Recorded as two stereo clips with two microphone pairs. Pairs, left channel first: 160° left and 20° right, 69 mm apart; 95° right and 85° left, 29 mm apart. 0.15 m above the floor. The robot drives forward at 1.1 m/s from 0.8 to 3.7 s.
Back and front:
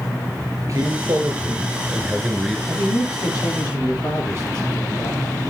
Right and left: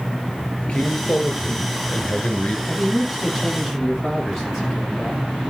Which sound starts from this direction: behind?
A man speaking, at 2.7 s.